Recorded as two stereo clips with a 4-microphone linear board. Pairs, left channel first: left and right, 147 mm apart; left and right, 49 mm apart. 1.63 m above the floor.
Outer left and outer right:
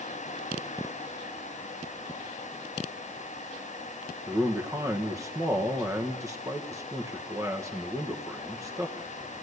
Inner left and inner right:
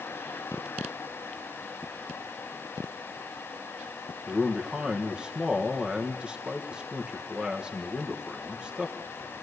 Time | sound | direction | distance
4.3 | a man speaking | 20° right (ahead or behind) | 1.5 m